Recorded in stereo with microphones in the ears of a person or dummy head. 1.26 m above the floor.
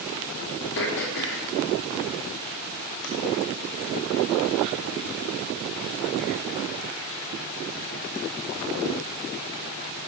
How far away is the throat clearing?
About 1.1 m.